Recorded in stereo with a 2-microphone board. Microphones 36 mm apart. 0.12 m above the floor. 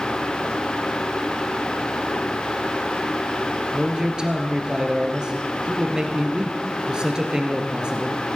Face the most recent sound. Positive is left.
turn(degrees=-20)  # may be behind; listen again after turning